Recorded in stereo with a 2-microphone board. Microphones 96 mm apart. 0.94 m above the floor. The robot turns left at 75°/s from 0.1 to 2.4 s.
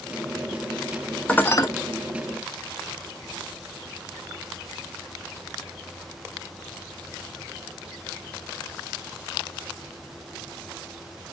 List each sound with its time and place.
1.3 s dishes clattering: 15° left (ahead or behind), 0.6 m; by 1.7 s 40° left (ahead or behind), 0.6 m